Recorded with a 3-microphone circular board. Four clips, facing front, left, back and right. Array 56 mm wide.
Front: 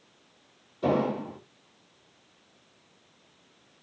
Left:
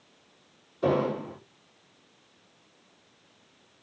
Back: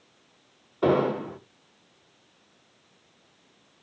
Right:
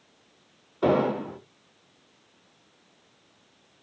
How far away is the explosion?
About 4.5 m.